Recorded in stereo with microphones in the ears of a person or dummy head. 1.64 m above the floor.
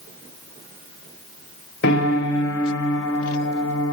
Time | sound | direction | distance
1.8 | a piano | 80° left | 5.5 m